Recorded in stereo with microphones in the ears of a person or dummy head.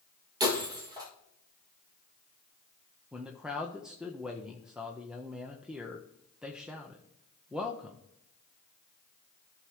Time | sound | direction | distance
0.4 | breaking glass | 15° right (ahead or behind) | 1.8 m
3.1 | a man speaking | centre (ahead or behind) | 0.7 m